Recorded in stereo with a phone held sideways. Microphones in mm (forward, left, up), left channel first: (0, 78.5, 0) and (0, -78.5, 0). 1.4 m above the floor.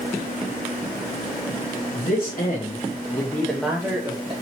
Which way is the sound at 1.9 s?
65° left (ahead or behind).